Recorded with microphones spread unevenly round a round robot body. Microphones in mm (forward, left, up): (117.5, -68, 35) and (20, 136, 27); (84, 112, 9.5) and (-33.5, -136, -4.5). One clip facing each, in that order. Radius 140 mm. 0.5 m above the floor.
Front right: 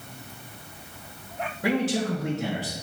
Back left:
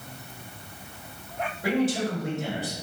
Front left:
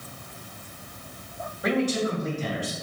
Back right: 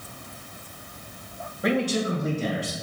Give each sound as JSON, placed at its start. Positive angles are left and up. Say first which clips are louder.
{"t": 1.6, "sound": "a man speaking", "louder": "even, even", "azimuth_deg": -60, "distance_m": 2.5}